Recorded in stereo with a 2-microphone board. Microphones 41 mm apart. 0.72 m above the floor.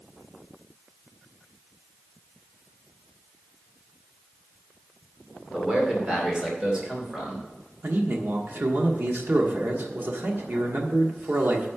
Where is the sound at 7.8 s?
50° right (ahead or behind), 1.3 m.